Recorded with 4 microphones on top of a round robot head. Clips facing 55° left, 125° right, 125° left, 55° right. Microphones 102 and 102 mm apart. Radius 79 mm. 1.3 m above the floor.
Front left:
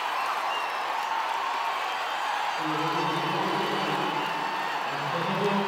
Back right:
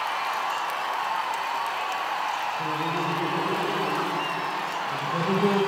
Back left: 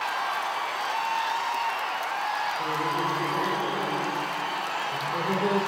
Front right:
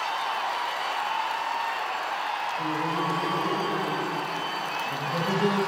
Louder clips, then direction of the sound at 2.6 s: Even, even; straight ahead.